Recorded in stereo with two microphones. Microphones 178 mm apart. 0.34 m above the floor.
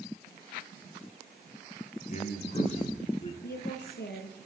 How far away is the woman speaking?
About 6 m.